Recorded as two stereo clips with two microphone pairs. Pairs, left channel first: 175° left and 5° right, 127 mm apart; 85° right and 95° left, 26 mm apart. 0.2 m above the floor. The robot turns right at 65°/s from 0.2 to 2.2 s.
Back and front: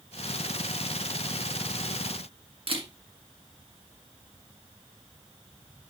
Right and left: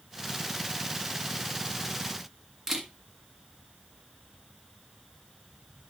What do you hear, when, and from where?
2.7 s a camera shutter: 25° left, 1.6 m